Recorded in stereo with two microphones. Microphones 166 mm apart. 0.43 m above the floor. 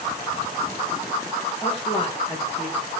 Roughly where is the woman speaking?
Left.